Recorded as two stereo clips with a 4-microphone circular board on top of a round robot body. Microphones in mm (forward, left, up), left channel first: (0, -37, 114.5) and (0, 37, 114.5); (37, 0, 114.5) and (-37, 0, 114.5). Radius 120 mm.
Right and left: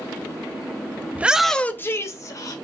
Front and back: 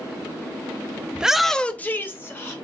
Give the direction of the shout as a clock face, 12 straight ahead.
8 o'clock.